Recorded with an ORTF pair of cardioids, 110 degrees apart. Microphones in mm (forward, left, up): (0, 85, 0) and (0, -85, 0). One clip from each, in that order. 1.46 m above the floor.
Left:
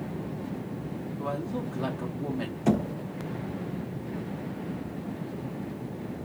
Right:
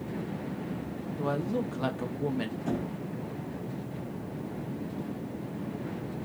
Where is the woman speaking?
15° right, 0.9 m.